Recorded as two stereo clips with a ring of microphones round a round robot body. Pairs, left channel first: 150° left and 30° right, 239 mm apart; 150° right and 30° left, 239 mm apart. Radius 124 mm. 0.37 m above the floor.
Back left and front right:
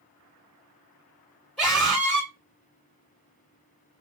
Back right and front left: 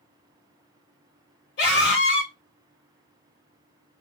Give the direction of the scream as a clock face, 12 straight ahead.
4 o'clock.